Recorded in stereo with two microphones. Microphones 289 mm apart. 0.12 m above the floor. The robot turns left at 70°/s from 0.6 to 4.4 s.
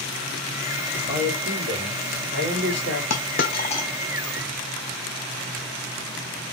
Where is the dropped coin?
65° left (ahead or behind), 0.8 m; by 3.9 s 10° left (ahead or behind), 0.8 m.